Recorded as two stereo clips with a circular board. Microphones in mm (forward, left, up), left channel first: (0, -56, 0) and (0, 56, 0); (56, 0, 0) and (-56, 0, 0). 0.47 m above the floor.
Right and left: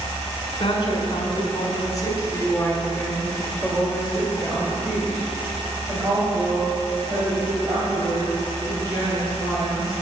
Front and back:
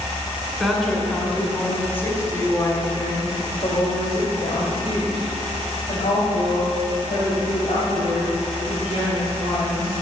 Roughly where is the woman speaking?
Right.